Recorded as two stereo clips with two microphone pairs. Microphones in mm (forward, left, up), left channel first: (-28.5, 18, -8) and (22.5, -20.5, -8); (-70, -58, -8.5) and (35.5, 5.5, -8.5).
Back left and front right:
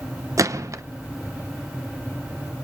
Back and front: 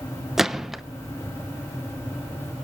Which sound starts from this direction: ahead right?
A gunshot, at 0.4 s.